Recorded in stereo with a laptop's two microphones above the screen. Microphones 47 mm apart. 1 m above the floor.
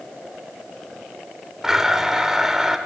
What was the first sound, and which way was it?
A blender, 10° right (ahead or behind).